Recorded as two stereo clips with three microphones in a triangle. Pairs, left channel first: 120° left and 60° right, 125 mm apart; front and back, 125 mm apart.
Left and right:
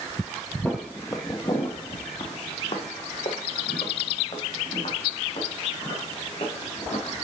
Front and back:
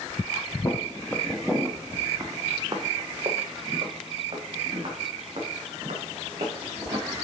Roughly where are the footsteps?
Ahead left.